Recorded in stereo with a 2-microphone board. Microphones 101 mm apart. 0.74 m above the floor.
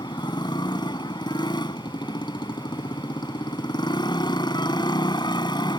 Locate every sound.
0.0 s a motorcycle: 50° left (ahead or behind)